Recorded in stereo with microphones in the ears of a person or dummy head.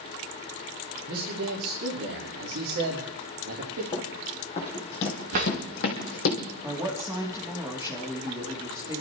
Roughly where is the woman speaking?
Centre.